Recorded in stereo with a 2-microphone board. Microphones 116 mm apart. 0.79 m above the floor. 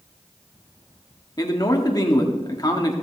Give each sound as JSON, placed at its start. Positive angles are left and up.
{"t": 1.4, "sound": "a man speaking", "side_deg": 35, "distance_m": 1.7}